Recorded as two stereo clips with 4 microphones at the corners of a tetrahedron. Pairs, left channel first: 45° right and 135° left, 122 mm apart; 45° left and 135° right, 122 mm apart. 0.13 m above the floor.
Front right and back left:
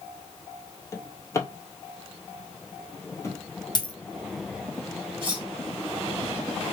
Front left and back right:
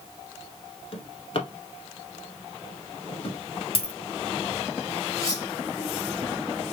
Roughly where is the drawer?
Ahead.